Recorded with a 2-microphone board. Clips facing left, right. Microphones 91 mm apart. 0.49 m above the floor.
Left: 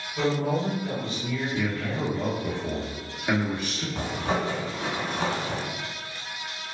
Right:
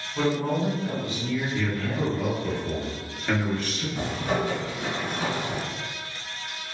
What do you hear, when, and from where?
0.1 s a man speaking: 30° right (ahead or behind), 1.5 m
1.5 s a man speaking: 15° left (ahead or behind), 0.7 m
4.0 s a zipper: 35° left (ahead or behind), 1.2 m